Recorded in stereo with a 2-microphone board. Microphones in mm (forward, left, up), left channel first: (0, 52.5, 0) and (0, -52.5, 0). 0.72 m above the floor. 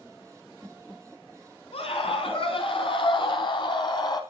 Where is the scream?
65° left (ahead or behind), 6.5 m; by 4.2 s 40° left (ahead or behind), 4 m.